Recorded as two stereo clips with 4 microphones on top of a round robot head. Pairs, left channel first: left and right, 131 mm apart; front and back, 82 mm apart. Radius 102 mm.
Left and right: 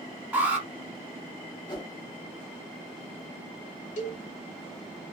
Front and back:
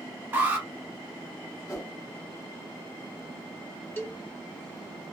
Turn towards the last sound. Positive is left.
turn(degrees=65)